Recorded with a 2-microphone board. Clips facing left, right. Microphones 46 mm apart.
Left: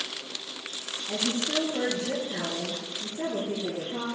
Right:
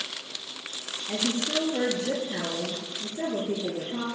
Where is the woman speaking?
65° right (ahead or behind), 3 m.